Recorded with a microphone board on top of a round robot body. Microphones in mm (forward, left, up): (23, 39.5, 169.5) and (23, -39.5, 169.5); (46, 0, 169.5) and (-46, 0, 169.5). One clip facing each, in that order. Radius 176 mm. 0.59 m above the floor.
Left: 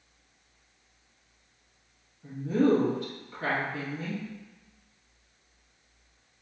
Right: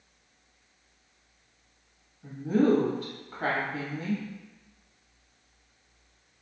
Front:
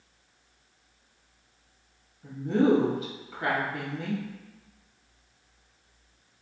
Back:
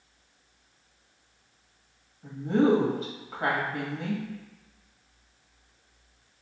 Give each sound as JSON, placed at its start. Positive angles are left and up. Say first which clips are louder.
{"t": 2.2, "sound": "a woman speaking", "louder": "right 1 dB, even", "azimuth_deg": -135, "distance_m": 1.3}